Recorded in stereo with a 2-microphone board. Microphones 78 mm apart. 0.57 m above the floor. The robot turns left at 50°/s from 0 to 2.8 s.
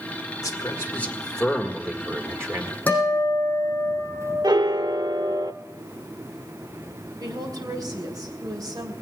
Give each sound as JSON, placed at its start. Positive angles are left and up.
{"t": 0.4, "sound": "a man speaking", "azimuth_deg": 55, "distance_m": 1.6}
{"t": 2.9, "sound": "a guitar", "side_deg": 20, "distance_m": 6.0}
{"t": 4.4, "sound": "a piano", "side_deg": -65, "distance_m": 0.5}
{"t": 7.2, "sound": "a woman speaking", "side_deg": -55, "distance_m": 3.0}